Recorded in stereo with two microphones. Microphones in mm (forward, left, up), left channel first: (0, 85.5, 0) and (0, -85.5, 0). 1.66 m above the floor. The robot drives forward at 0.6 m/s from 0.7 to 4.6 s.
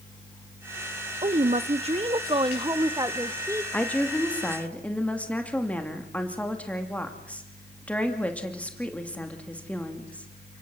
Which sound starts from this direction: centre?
A woman speaking, at 3.7 s.